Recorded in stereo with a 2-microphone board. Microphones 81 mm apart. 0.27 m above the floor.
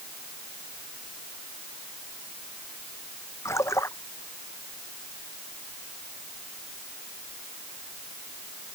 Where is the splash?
35° left (ahead or behind).